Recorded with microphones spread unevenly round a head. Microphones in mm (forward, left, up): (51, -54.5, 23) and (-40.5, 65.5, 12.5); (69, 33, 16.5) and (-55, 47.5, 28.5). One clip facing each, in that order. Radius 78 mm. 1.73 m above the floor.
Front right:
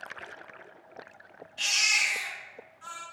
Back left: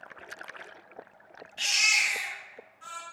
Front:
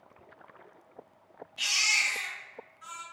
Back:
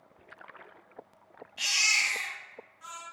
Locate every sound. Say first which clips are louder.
1.6 s a baby crying: back left 1 dB, even; 160° right, 1.9 m